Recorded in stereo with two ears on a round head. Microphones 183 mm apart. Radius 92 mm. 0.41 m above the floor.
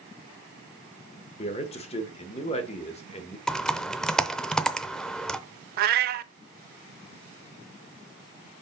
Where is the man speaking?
30° left (ahead or behind), 1.2 m.